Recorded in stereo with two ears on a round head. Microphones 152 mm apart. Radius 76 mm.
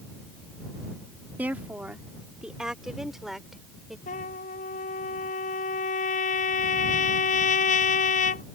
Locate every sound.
1.4 s a woman speaking: 10° right (ahead or behind); by 4.0 s centre (ahead or behind)
4.1 s a trumpet: 45° left (ahead or behind)